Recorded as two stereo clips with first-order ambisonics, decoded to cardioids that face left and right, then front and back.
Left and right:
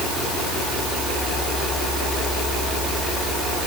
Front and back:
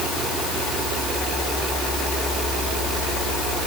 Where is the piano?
No piano in this recording.